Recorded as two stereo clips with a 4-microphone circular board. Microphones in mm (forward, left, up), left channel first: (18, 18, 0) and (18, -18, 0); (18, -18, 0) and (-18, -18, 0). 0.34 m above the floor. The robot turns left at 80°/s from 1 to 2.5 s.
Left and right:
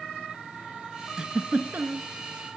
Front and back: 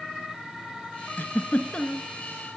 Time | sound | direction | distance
1.2 | a giggle | 20° right | 0.9 m